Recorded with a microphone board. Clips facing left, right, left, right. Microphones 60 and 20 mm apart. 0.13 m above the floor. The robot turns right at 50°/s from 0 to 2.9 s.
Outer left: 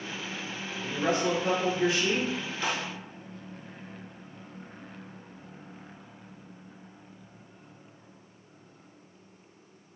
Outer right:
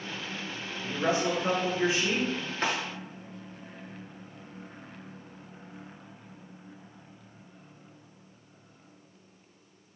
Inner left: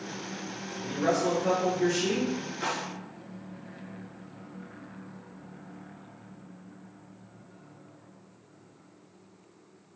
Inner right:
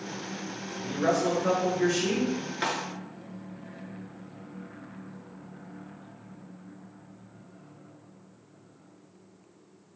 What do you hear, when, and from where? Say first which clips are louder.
0.8 s a man speaking: even, inner right 1 dB; 165° right, 1.8 m; by 2.3 s 90° right, 1.8 m
2.6 s a snare drum: outer right 2 dB, inner right 2 dB; 50° right (ahead or behind), 0.8 m